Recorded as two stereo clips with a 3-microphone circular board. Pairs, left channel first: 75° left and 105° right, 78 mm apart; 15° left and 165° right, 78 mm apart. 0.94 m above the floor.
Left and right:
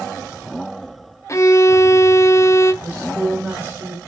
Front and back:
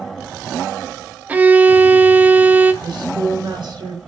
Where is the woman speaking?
155° right, 2.5 m.